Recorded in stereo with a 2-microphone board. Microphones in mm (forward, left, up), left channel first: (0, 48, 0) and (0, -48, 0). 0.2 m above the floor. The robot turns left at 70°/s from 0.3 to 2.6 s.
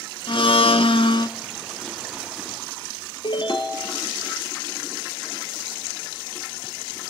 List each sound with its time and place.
0.3 s a blender: 120° left, 0.7 m; by 1.3 s 50° left, 0.7 m
3.2 s a ringtone: 55° left (ahead or behind), 2 m